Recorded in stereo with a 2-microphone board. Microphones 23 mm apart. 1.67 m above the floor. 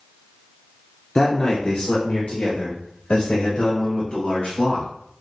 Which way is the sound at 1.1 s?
40° left (ahead or behind).